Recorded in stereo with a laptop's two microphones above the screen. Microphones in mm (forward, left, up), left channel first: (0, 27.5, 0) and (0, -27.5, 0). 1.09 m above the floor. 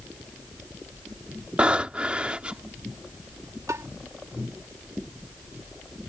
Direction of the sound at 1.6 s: 20° right (ahead or behind).